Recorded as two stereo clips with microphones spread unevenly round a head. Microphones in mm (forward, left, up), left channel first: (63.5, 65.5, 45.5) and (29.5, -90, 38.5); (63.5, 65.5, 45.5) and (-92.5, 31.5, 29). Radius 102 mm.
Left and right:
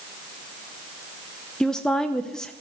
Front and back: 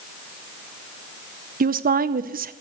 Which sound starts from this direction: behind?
A woman speaking, at 1.6 s.